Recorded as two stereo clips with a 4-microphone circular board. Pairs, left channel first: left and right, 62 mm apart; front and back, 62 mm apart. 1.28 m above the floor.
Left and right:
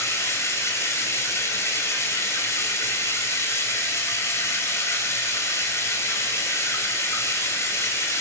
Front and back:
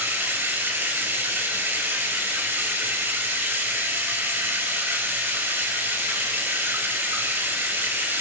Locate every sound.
0.0 s running water: 130° left, 5 m